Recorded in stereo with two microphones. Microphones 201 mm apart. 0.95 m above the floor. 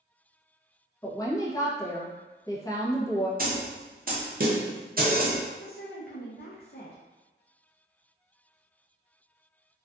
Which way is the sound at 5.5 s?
50° left (ahead or behind).